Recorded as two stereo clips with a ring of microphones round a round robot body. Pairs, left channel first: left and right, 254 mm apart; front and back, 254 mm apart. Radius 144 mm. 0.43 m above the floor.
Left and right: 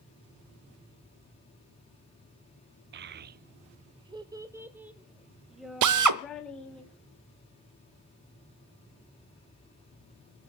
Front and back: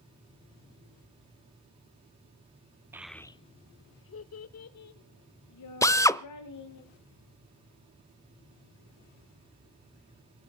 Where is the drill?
80° right, 0.7 m.